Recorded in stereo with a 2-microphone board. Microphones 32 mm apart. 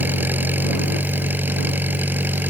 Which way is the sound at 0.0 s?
70° right (ahead or behind).